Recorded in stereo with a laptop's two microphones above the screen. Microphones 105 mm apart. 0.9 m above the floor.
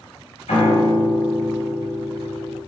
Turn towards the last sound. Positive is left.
turn(degrees=75)  # may be behind; listen again after turning